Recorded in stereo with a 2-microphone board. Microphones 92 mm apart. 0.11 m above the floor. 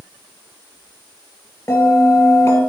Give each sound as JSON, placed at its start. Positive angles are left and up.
{"t": 1.7, "sound": "a bell", "side_deg": 30, "distance_m": 2.0}